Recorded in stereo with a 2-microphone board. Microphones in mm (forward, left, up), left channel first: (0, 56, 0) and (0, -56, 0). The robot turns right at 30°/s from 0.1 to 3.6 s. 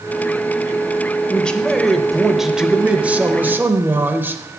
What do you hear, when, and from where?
1.3 s a man speaking: 10° left (ahead or behind), 0.9 m; by 4.4 s 15° right (ahead or behind), 0.9 m